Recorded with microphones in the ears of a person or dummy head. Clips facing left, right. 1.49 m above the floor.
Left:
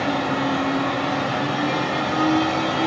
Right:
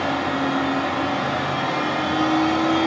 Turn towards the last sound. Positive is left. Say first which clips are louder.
# even
turn(degrees=-35)  # may be behind; listen again after turning